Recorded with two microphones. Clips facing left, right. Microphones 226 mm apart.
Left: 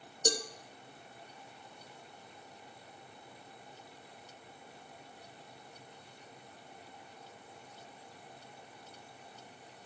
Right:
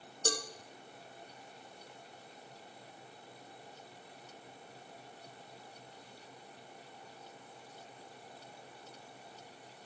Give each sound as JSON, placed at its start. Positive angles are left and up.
{"t": 0.2, "sound": "a cowbell", "side_deg": 20, "distance_m": 1.0}